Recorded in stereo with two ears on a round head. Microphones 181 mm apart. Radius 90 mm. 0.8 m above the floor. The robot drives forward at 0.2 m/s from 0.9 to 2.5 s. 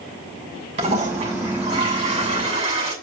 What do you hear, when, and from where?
0.8 s a toilet flushing: 35° right (ahead or behind), 6.5 m